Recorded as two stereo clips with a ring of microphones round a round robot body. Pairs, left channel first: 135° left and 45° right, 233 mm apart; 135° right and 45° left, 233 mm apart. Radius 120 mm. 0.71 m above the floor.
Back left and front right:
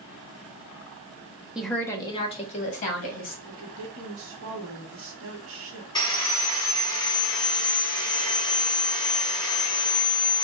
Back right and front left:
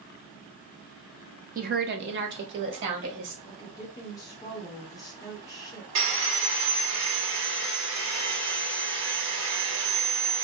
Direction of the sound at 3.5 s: 60° right.